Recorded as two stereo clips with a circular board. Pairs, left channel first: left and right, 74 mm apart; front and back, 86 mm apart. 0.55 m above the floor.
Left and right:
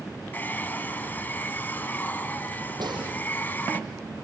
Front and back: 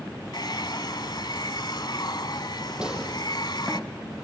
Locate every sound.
0.3 s a hair dryer: 30° left, 0.9 m
2.8 s a gunshot: 100° right, 7 m